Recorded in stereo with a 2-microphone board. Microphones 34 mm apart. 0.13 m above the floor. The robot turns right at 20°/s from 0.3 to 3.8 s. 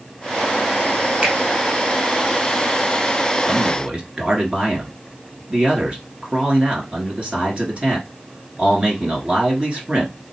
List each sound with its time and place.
1.2 s a finger snap: 20° right (ahead or behind), 1.9 m; by 1.4 s 25° right (ahead or behind), 1.9 m
3.5 s a man speaking: 25° right (ahead or behind), 1.6 m; by 10.1 s 30° right (ahead or behind), 1.6 m